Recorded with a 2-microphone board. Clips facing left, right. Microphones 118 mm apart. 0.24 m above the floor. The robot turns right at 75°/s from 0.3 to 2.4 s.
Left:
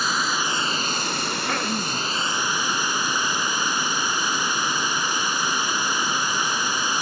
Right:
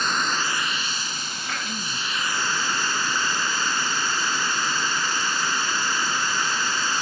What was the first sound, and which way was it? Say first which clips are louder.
Running water: left 1 dB; 5° left.